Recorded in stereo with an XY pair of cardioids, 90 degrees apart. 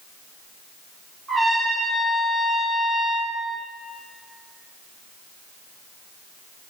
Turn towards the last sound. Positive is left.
turn(degrees=-35)